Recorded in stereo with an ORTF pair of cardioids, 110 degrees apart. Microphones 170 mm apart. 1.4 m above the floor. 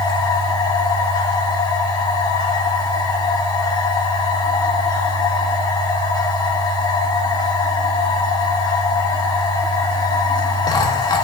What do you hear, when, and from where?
0.0 s a machine running: 25° left, 1.2 m